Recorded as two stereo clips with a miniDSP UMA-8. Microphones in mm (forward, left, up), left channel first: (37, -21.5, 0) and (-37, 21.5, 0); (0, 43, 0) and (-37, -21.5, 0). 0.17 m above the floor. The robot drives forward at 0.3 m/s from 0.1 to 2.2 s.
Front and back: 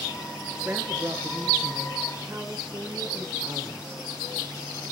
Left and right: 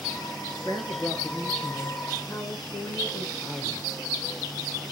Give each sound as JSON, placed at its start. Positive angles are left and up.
{"t": 0.7, "sound": "a woman speaking", "azimuth_deg": 80, "distance_m": 3.0}